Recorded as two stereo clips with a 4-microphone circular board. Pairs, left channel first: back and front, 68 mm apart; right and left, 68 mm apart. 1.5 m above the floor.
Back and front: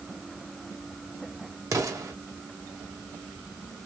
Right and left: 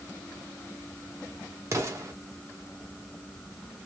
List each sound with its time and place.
1.7 s an explosion: 45° left, 1.6 m